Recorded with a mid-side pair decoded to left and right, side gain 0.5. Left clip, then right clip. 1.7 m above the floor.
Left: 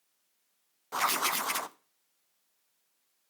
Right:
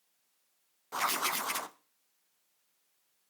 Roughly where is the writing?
Ahead.